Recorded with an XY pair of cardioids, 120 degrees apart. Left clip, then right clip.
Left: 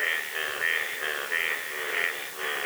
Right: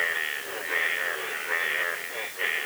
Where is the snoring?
I don't hear snoring.